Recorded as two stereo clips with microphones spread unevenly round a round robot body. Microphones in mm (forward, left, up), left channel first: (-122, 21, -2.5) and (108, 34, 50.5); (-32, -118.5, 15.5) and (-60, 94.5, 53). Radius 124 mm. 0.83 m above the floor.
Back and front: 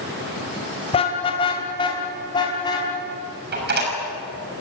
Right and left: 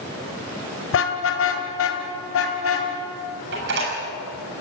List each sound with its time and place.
0.9 s a car horn: 110° right, 2.5 m; by 2.9 s 100° right, 4 m
3.5 s a door slam: 50° left, 7 m